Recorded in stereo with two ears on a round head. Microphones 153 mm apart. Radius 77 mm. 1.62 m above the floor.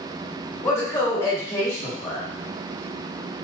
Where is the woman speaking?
15° left (ahead or behind), 1.7 m.